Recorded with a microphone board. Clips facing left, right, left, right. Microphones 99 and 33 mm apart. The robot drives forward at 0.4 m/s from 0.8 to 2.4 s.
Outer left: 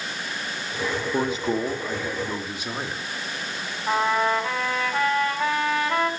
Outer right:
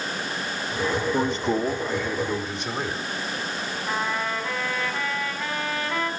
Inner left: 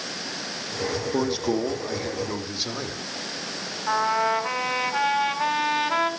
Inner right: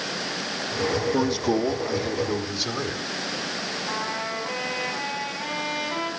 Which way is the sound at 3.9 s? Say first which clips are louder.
Outer left 7 dB, inner left 11 dB; 65° left (ahead or behind).